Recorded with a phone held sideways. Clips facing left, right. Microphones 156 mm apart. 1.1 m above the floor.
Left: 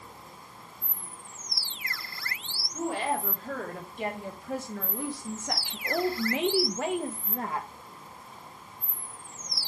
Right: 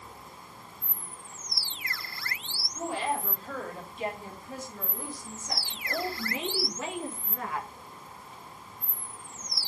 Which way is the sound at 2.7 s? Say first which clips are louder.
Left 2 dB; 55° left (ahead or behind).